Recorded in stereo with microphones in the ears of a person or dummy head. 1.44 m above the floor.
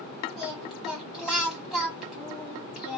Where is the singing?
Centre (ahead or behind), 1.6 m.